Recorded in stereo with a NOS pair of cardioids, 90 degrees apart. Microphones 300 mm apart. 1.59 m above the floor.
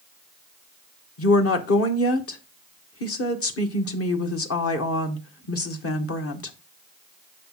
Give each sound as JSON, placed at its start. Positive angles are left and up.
{"t": 1.2, "sound": "a woman speaking", "azimuth_deg": 50, "distance_m": 1.4}